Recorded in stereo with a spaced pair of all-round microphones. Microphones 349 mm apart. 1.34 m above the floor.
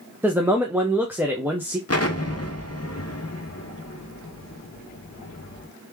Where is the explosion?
45° left (ahead or behind), 0.7 m.